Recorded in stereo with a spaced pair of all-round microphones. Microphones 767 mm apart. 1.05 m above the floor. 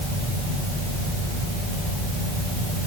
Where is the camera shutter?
I don't hear a camera shutter.